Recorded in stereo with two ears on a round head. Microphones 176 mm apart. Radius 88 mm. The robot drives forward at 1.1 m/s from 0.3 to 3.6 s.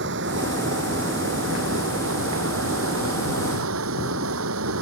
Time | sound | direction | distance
0.0 | running water | 60° right (ahead or behind) | ?